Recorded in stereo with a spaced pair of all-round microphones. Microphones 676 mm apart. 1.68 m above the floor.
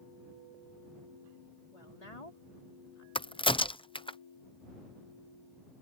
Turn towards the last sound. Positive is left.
turn(degrees=10)  # may be behind; listen again after turning